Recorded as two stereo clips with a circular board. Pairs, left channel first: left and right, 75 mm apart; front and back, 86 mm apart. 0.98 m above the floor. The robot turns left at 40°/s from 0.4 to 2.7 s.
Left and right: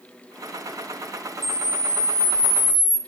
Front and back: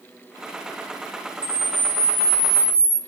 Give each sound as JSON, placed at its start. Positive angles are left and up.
{"t": 1.4, "sound": "a camera shutter", "azimuth_deg": 75, "distance_m": 3.5}